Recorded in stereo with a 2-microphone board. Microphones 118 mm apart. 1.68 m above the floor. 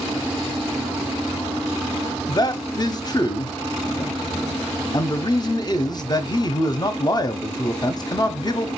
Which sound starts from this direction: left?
A man speaking, at 2.3 s.